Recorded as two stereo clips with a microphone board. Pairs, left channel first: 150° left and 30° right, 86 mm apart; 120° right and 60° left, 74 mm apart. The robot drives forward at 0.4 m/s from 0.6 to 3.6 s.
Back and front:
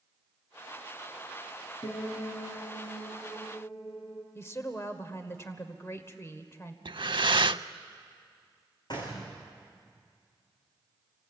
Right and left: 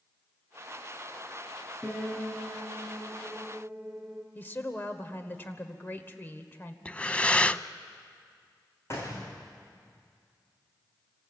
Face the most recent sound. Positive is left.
turn(degrees=-175)